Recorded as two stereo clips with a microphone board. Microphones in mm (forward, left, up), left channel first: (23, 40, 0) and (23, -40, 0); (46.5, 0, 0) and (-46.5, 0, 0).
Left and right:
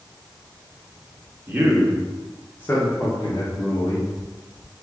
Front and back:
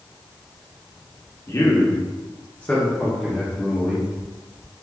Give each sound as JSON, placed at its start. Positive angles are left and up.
{"t": 1.5, "sound": "a man speaking", "azimuth_deg": -35, "distance_m": 0.9}